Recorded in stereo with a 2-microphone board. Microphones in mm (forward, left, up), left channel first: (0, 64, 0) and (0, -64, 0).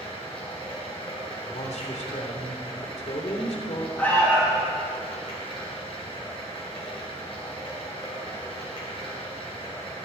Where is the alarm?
15° left (ahead or behind), 7.5 m.